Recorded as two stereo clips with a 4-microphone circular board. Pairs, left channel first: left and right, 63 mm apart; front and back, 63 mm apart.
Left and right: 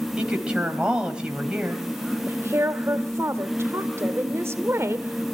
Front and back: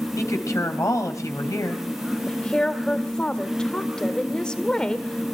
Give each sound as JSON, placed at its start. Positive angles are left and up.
{"t": 0.2, "sound": "a woman speaking", "azimuth_deg": -20, "distance_m": 3.5}
{"t": 2.3, "sound": "a woman speaking", "azimuth_deg": -70, "distance_m": 1.4}